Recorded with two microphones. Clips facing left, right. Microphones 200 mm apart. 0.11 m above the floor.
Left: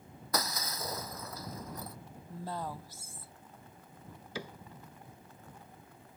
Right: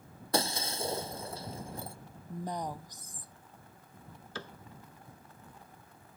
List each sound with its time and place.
0.3 s breaking glass: 30° right (ahead or behind)
2.3 s a woman speaking: 15° right (ahead or behind)
4.3 s a cupboard door: 10° left (ahead or behind)